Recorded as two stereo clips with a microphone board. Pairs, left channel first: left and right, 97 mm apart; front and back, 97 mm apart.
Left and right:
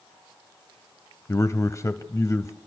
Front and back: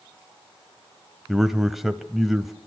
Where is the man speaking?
95° left, 1.0 m.